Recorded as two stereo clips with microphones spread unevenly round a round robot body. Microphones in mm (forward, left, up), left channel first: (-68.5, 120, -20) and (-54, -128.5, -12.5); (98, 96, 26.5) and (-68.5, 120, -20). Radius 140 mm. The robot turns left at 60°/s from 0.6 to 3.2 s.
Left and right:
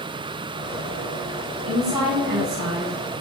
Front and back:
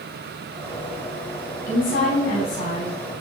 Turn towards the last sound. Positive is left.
turn(degrees=-90)